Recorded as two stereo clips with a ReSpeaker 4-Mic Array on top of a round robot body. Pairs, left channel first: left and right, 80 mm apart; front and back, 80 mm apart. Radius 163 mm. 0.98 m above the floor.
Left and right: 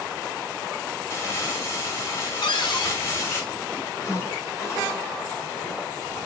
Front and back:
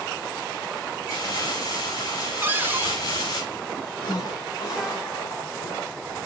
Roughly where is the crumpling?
Ahead left.